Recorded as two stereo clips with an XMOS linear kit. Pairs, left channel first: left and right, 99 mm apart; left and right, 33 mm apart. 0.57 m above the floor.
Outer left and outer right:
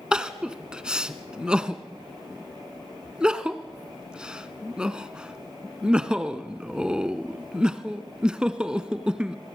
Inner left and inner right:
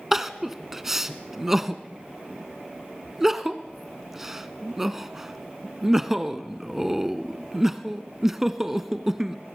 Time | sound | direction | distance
0.1 | crying | 10° right (ahead or behind) | 1.2 m